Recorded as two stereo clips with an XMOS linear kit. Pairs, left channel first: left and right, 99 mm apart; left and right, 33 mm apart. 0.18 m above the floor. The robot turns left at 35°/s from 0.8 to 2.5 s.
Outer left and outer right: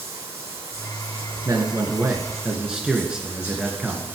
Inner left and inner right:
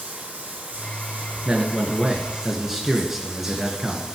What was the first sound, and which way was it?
Running water, 95° right.